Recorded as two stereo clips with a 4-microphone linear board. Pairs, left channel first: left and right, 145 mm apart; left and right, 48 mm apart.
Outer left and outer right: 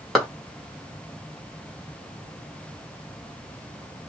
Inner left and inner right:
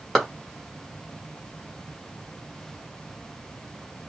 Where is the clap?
Centre (ahead or behind), 1.4 m.